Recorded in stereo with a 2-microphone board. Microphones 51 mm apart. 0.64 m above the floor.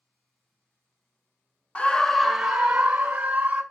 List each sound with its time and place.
1.8 s a scream: 25° left (ahead or behind), 0.5 m; by 3.6 s 20° right (ahead or behind), 1.6 m